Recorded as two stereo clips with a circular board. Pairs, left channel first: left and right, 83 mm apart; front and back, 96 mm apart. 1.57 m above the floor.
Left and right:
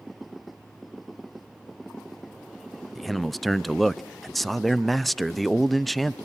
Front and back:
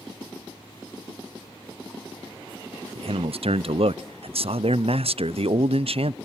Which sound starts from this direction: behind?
A man speaking, at 3.0 s.